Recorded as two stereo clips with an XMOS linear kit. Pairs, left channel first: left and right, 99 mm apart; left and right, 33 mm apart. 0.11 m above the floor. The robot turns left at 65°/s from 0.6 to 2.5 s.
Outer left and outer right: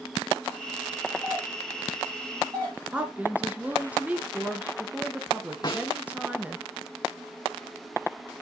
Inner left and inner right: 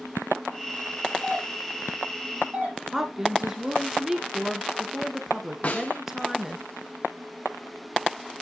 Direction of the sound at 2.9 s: 15° right (ahead or behind).